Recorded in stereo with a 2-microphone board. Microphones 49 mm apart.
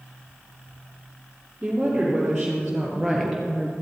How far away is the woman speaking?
About 3 m.